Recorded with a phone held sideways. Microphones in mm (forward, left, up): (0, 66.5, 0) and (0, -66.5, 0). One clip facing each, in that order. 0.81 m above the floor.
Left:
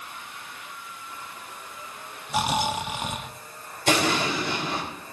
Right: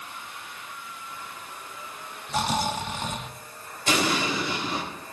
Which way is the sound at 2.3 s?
10° left (ahead or behind).